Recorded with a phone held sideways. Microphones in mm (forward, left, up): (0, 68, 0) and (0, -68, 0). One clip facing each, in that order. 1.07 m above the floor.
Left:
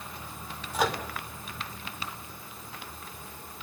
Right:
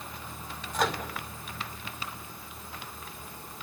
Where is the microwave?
5° left (ahead or behind), 2 m.